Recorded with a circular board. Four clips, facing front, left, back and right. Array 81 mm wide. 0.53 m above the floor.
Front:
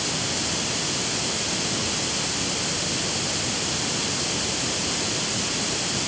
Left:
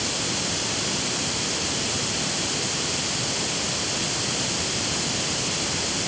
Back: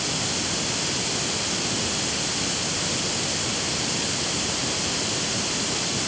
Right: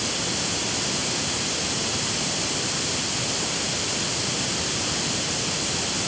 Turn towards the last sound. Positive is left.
No sound to turn to.